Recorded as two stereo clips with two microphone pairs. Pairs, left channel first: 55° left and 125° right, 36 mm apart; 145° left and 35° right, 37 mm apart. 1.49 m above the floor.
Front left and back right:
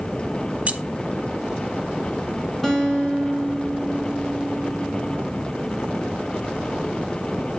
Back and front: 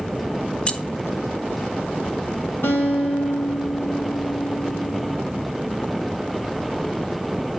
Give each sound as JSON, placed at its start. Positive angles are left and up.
{"t": 0.7, "sound": "keys jangling", "azimuth_deg": -160, "distance_m": 0.8}
{"t": 2.6, "sound": "a guitar", "azimuth_deg": 135, "distance_m": 2.5}